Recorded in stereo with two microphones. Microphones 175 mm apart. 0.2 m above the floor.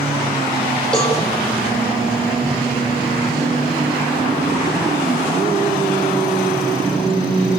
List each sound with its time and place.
0.9 s a cowbell: 5° left (ahead or behind), 7.5 m